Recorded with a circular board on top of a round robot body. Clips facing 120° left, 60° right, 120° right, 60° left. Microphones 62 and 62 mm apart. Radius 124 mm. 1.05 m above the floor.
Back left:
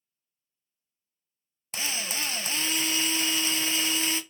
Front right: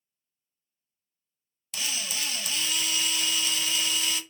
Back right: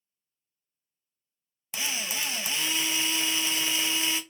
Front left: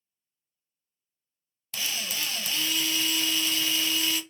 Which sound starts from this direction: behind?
A drill, at 1.7 s.